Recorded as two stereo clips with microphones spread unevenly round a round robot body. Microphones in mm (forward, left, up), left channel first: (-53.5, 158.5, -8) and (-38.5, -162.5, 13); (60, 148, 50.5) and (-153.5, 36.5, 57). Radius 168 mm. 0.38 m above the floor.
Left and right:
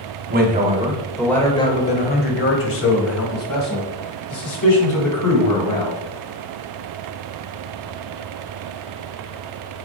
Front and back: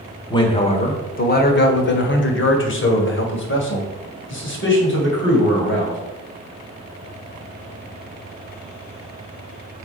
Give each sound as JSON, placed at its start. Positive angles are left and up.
{"t": 0.3, "sound": "a man speaking", "azimuth_deg": -35, "distance_m": 1.1}